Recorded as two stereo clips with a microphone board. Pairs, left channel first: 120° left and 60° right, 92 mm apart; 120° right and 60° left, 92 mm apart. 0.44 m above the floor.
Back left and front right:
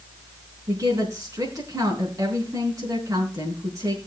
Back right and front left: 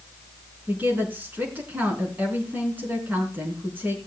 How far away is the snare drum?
No snare drum in this recording.